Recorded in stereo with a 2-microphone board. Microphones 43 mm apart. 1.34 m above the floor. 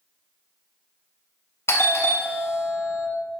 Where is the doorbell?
65° left (ahead or behind), 0.6 m.